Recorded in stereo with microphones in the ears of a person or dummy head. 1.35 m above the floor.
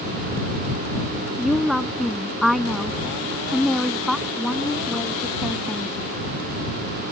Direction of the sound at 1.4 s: Centre (ahead or behind).